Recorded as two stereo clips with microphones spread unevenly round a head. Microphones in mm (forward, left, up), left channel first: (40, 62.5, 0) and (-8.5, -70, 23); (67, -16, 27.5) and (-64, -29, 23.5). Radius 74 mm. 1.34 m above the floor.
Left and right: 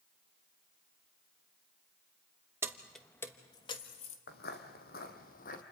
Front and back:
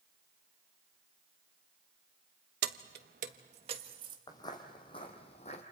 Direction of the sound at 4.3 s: 70° left.